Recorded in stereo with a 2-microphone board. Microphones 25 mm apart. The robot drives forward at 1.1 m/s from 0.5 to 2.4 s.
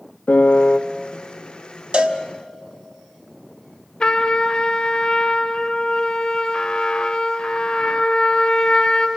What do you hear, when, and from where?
0.3 s a piano: 70° left (ahead or behind), 0.6 m; by 0.8 s 50° left (ahead or behind), 0.7 m
1.9 s a cowbell: 50° right (ahead or behind), 1.1 m; by 2.2 s 65° right (ahead or behind), 1.0 m
4.0 s a trumpet: 30° left (ahead or behind), 0.8 m